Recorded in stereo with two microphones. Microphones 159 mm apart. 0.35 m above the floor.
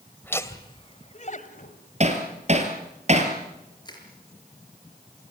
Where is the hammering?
45° right (ahead or behind), 3 m.